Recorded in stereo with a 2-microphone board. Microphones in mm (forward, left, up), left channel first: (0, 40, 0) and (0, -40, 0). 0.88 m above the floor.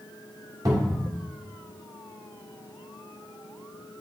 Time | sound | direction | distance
0.7 | a cupboard door | 45° right (ahead or behind) | 1.7 m